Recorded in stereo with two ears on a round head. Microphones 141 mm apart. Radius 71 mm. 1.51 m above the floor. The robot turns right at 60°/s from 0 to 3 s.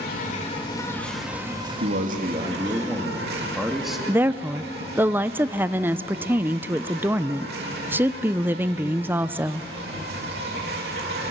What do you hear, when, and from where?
0.0 s an insect: 110° left, 3.5 m; by 11.3 s 70° right, 3.5 m
1.8 s a man speaking: 75° right, 2 m; by 4.0 s straight ahead, 2 m
4.1 s a woman speaking: 15° right (ahead or behind), 0.6 m